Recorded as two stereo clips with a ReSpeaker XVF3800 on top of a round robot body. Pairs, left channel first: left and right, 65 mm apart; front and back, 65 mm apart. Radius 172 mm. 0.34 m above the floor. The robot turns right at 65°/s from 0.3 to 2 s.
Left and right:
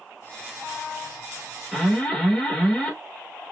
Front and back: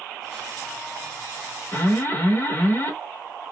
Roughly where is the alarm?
Ahead.